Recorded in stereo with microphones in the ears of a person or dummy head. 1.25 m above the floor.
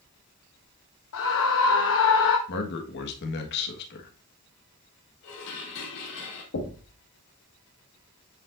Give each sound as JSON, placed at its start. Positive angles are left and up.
{"t": 1.1, "sound": "a scream", "side_deg": 65, "distance_m": 0.7}
{"t": 2.5, "sound": "a man speaking", "side_deg": 65, "distance_m": 1.4}
{"t": 5.2, "sound": "dishes clattering", "side_deg": 70, "distance_m": 2.5}
{"t": 6.5, "sound": "knocking", "side_deg": 70, "distance_m": 1.5}